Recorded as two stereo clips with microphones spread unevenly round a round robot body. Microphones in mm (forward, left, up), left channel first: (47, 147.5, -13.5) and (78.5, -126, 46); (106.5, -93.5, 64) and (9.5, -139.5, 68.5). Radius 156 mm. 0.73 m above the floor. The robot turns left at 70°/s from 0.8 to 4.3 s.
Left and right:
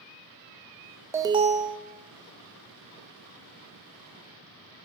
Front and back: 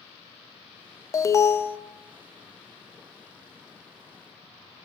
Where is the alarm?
10° left, 0.5 m; by 1.8 s 35° right, 0.5 m.